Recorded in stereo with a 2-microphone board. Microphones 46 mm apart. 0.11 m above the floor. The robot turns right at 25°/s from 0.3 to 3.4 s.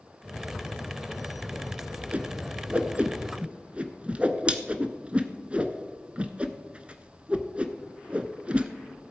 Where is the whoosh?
30° right (ahead or behind), 0.7 m; by 8.7 s 25° right (ahead or behind), 0.7 m.